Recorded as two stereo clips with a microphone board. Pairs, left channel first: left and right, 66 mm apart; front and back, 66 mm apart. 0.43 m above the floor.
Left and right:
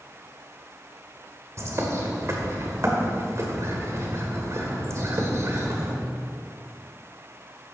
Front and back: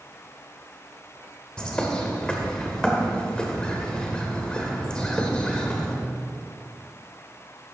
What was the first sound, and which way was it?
A bird, 75° right.